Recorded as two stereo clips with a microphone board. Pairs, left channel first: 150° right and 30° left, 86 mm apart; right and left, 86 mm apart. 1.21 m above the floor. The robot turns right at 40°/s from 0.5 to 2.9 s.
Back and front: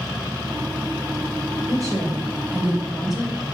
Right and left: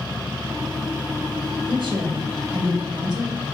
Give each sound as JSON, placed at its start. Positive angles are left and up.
{"t": 1.7, "sound": "a woman speaking", "azimuth_deg": 70, "distance_m": 0.6}